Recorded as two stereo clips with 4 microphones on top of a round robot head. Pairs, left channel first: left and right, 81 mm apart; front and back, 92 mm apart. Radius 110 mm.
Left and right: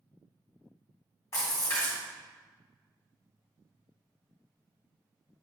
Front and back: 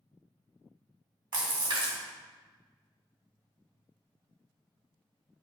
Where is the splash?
150° left, 2 m.